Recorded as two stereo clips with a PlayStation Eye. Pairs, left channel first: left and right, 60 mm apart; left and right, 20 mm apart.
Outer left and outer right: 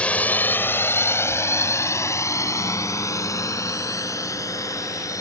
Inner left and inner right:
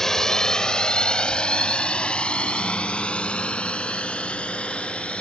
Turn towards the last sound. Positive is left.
turn(degrees=80)